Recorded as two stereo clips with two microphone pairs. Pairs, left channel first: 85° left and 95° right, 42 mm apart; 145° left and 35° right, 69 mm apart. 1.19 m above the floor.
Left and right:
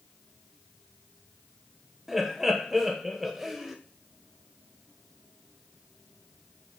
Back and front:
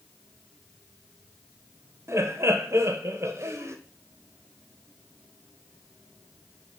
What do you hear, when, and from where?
2.1 s laughter: 15° right, 0.7 m